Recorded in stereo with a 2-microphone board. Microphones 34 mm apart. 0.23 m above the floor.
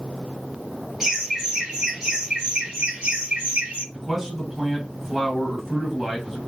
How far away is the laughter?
About 1.7 m.